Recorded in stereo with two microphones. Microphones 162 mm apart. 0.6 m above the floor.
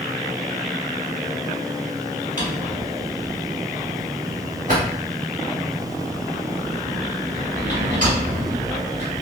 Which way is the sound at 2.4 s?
50° right (ahead or behind).